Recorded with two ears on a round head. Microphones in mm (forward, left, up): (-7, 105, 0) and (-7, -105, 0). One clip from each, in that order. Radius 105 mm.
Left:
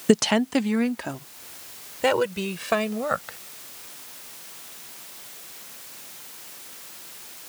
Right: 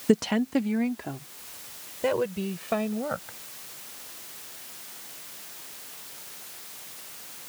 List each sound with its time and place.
0.1 s a woman speaking: 30° left (ahead or behind); by 3.4 s 50° left (ahead or behind)